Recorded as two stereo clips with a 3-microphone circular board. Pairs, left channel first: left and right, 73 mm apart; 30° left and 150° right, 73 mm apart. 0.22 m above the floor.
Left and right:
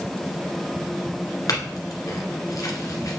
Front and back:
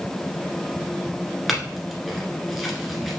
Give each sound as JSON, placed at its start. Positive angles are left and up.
{"t": 1.5, "sound": "a clink", "azimuth_deg": 120, "distance_m": 1.6}